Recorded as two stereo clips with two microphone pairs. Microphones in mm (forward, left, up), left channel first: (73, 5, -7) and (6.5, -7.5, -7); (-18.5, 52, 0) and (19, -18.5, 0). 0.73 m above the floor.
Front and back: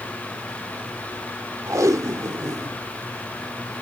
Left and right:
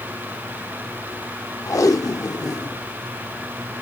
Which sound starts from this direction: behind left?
Tape being pulled, at 1.7 s.